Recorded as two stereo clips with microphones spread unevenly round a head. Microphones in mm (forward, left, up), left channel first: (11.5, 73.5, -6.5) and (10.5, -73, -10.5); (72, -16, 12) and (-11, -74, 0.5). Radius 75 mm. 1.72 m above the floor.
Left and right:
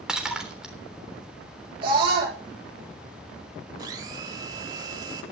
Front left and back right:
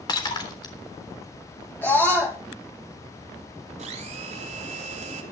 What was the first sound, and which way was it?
Breaking glass, 5° right.